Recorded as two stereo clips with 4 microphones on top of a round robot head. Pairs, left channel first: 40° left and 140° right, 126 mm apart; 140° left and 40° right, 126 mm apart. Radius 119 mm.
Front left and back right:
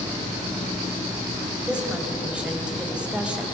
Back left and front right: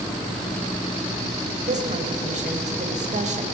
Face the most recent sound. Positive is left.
turn(degrees=-60)